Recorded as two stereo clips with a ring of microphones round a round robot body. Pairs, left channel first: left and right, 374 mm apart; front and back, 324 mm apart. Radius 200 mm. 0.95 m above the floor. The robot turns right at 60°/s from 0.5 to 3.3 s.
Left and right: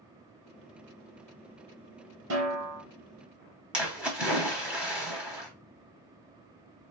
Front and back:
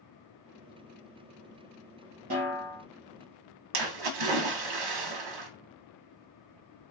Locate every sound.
2.3 s a snare drum: 140° right, 2.5 m; by 2.8 s 105° right, 2.5 m
3.7 s a splash: 175° right, 1.1 m